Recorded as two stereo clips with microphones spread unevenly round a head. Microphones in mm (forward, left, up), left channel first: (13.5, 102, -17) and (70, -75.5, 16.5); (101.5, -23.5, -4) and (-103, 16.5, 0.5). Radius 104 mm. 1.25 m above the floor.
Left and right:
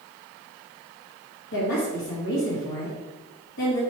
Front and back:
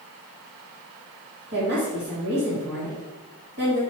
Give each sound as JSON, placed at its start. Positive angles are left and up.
{"t": 1.5, "sound": "a woman speaking", "azimuth_deg": 125, "distance_m": 2.5}